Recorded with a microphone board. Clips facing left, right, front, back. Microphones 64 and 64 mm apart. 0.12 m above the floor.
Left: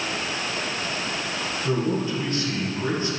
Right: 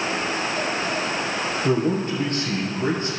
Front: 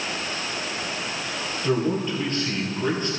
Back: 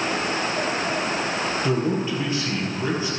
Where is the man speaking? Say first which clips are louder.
Right 2 dB, front 2 dB; 105° right, 3 m.